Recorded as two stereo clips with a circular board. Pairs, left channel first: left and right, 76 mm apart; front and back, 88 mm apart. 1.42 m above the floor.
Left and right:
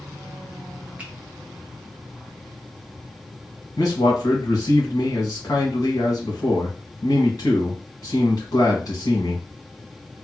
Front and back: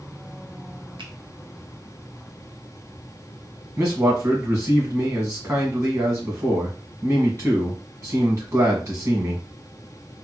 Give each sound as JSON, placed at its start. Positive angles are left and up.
{"t": 1.0, "sound": "a finger snap", "azimuth_deg": -160, "distance_m": 0.8}
{"t": 3.8, "sound": "a man speaking", "azimuth_deg": 125, "distance_m": 1.7}